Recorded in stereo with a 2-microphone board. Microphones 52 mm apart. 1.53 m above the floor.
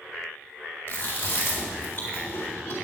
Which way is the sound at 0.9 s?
40° left (ahead or behind).